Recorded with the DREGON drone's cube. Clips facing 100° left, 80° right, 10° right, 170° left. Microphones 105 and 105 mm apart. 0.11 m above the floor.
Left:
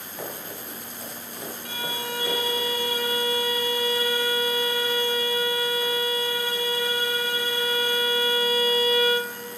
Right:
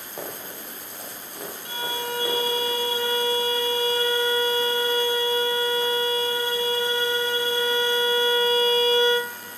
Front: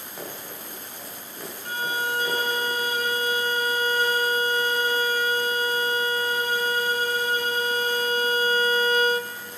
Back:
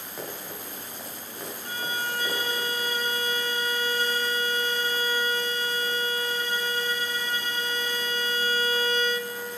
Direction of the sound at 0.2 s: 105° right.